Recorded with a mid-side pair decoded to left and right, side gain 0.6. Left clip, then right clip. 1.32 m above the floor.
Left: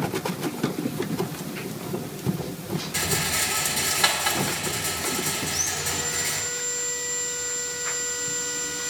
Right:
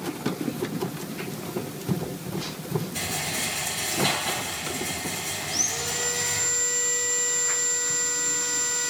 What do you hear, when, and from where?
2.9 s a rattle: 70° left, 2.5 m
5.5 s sawing: 15° right, 2.5 m